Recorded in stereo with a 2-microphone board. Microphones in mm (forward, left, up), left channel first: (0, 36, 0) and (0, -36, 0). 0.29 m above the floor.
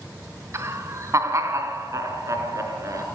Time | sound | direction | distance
0.5 | laughter | 45° right (ahead or behind) | 1.9 m